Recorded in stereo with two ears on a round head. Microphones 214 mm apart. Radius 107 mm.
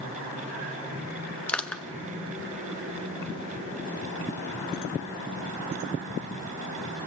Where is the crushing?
5° left (ahead or behind), 1.2 m.